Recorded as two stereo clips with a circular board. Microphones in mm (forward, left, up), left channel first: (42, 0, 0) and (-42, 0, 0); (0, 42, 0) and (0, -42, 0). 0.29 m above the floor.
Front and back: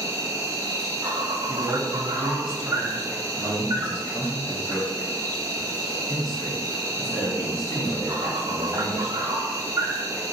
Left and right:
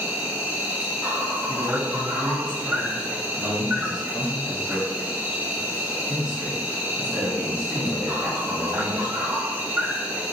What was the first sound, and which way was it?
An insect, 145° right.